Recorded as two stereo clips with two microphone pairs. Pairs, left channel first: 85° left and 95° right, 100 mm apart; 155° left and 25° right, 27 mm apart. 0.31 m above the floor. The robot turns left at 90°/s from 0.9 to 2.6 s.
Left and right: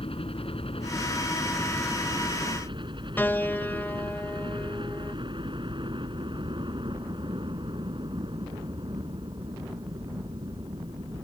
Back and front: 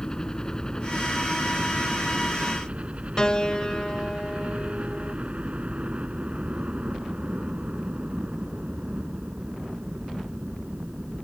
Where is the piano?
135° left.